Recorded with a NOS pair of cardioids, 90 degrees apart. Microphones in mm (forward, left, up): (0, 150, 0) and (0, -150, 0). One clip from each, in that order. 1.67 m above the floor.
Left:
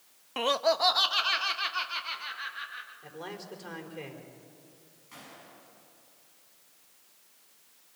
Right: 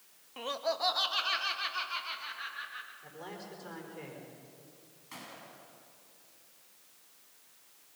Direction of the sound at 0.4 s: 55° left.